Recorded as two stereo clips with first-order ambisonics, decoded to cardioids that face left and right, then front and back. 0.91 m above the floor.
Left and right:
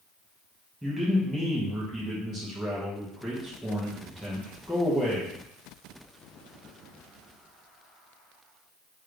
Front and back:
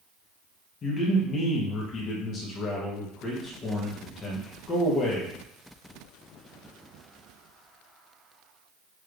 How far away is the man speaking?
About 1.0 m.